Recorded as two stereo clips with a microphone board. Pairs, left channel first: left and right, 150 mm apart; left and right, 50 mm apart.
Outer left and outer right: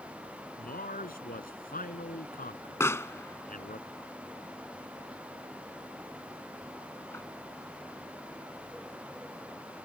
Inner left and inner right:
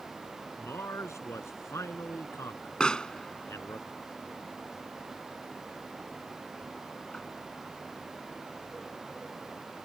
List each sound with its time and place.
0.6 s a man speaking: 65° left (ahead or behind)
2.8 s a pop: 15° left (ahead or behind)